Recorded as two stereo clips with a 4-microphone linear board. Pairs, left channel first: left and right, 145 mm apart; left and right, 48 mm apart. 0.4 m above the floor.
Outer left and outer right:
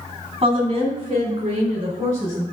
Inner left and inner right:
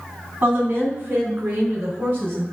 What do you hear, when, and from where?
0.4 s a woman speaking: 40° right (ahead or behind), 3 m